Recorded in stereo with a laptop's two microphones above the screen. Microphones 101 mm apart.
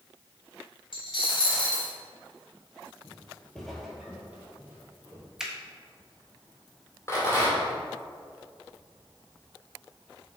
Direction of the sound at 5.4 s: 5° right (ahead or behind).